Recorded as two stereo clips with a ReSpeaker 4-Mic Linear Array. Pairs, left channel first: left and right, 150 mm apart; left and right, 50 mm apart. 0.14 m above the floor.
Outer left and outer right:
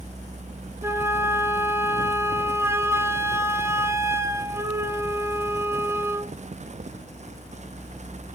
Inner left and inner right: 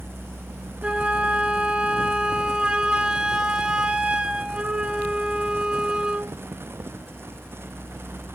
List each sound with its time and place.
0.8 s a flute: 15° right (ahead or behind), 0.8 m